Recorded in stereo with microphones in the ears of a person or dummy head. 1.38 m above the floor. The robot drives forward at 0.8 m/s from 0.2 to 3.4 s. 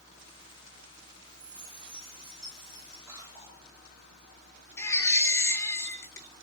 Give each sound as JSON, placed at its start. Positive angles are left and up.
{"t": 1.3, "sound": "a chime", "side_deg": -5, "distance_m": 2.5}
{"t": 3.1, "sound": "a cough", "side_deg": -10, "distance_m": 5.0}
{"t": 4.8, "sound": "a baby crying", "side_deg": 15, "distance_m": 1.7}